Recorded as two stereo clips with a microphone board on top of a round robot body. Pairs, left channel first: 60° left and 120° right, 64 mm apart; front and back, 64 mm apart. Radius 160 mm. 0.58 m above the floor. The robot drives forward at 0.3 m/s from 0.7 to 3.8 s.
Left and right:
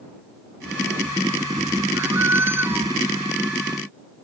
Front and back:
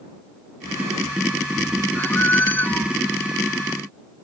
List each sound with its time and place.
1.9 s a squeak: 60° right; by 2.9 s 65° right